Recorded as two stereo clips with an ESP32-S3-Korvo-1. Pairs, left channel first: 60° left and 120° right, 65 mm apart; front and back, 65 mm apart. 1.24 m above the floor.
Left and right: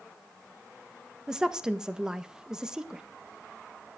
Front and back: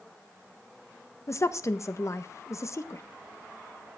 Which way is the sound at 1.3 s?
40° right.